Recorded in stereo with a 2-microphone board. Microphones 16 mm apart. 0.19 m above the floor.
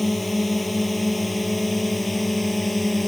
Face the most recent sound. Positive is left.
turn(degrees=0)  # may be behind; listen again after turning